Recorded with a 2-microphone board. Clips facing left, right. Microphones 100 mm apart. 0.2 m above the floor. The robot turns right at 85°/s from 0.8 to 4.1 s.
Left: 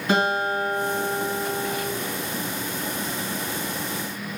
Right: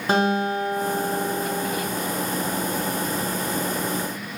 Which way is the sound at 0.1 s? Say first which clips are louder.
Right 1 dB; 85° right.